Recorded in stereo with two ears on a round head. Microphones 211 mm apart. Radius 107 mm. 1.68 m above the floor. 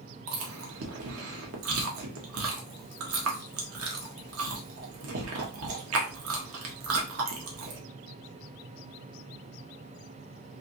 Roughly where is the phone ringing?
No phone ringing in this recording.